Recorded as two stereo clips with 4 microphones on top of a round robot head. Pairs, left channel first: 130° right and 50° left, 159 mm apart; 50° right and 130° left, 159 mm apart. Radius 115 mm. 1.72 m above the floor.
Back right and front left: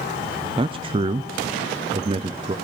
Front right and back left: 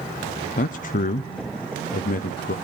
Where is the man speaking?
10° right, 0.6 m.